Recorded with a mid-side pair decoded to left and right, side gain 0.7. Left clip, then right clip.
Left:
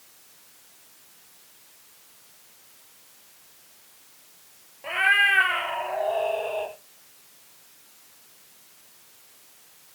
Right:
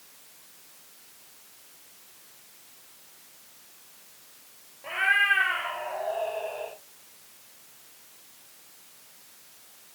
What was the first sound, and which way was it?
A cat meowing, 25° left.